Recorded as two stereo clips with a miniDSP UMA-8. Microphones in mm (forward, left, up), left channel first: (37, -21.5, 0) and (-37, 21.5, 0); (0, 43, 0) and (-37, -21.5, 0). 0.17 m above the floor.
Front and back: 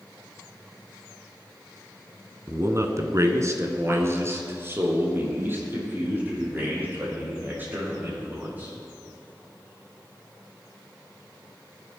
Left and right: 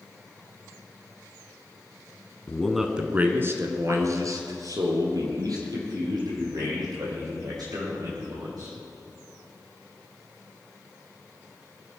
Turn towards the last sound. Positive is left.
turn(degrees=-140)